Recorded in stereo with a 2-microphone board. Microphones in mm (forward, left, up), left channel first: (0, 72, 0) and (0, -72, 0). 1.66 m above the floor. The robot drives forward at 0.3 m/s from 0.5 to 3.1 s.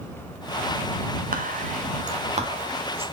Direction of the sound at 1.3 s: 75° right (ahead or behind).